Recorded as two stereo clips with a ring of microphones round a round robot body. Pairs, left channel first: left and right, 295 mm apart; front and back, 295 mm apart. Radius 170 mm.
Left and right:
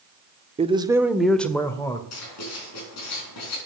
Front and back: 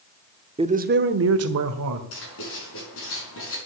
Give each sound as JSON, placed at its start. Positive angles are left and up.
{"t": 0.6, "sound": "a man speaking", "azimuth_deg": -130, "distance_m": 0.9}
{"t": 2.1, "sound": "writing", "azimuth_deg": 50, "distance_m": 5.0}